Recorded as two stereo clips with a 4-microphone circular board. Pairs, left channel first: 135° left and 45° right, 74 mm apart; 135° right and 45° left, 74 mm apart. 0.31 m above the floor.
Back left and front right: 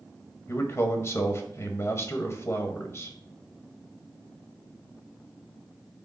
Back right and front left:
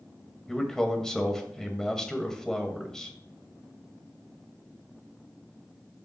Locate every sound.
0.5 s a man speaking: 145° left, 1.4 m